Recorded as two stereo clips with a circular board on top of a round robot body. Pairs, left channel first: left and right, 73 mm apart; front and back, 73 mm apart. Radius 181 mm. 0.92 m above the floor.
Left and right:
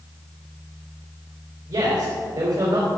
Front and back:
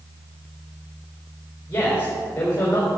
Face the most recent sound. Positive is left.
turn(degrees=-65)